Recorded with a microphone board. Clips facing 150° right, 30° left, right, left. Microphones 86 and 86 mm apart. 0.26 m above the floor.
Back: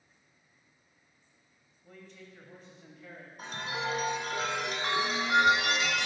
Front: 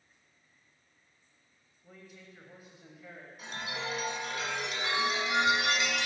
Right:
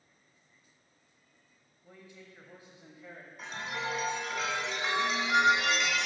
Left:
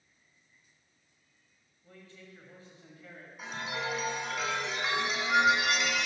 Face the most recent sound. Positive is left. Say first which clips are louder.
# back 3 dB, left 1 dB
turn(degrees=175)